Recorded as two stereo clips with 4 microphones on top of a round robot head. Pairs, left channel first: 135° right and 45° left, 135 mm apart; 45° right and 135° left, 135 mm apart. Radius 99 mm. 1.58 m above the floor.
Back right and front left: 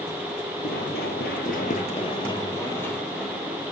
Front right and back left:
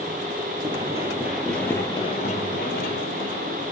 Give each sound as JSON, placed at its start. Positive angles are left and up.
{"t": 0.6, "sound": "running footsteps", "azimuth_deg": -160, "distance_m": 2.5}